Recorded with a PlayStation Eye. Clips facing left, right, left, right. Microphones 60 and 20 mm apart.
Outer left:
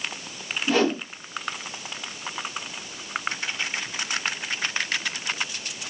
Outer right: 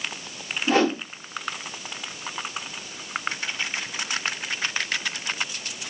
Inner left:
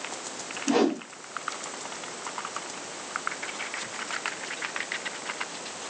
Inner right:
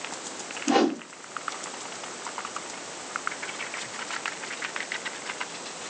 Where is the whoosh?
35° right (ahead or behind), 1.2 m.